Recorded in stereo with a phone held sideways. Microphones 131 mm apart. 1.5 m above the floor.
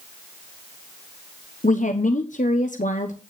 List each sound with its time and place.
1.6 s a woman speaking: 75° left (ahead or behind), 1.1 m